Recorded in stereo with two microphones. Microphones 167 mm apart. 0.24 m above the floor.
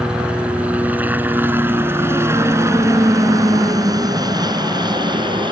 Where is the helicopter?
5° right (ahead or behind); by 5.5 s 30° right (ahead or behind).